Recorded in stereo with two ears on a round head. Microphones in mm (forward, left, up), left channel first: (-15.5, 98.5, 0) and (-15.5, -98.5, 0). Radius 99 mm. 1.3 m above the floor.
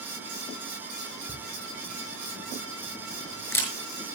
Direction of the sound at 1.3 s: 10° left (ahead or behind).